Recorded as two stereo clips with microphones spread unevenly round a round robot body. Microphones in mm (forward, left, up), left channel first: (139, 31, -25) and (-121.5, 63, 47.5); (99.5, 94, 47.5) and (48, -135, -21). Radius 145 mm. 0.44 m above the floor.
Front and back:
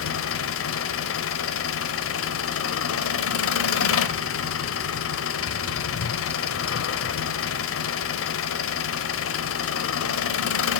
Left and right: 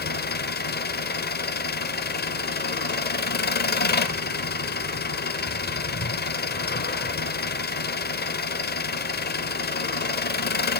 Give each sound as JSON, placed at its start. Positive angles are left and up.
{"t": 0.0, "sound": "an engine running", "azimuth_deg": 20, "distance_m": 0.8}